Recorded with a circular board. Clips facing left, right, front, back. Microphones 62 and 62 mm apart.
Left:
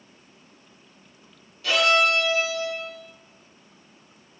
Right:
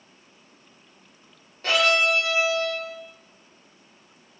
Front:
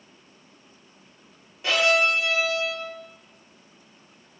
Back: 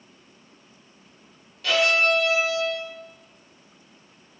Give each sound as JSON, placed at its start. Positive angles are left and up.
{"t": 1.6, "sound": "a violin", "azimuth_deg": -60, "distance_m": 1.1}